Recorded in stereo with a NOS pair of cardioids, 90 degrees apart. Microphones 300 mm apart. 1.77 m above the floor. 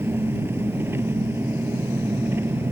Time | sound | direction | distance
0.0 | an engine running | 10° right | ?